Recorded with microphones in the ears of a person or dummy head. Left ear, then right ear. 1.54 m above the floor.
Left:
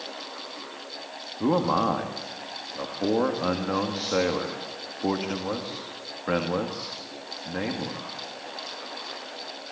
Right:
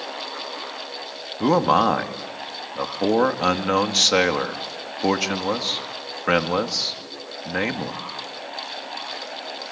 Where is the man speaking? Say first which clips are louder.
Right 6 dB; 70° right (ahead or behind), 1.9 m.